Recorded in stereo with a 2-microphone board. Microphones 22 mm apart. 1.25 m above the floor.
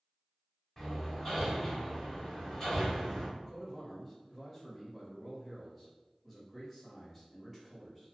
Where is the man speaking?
Centre (ahead or behind), 1.4 m.